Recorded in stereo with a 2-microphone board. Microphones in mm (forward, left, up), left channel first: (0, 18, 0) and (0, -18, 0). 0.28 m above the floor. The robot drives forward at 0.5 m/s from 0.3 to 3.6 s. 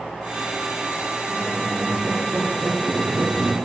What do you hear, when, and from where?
1.3 s a squeak: 25° right (ahead or behind), 2.5 m; by 3.6 s 50° right (ahead or behind), 1.4 m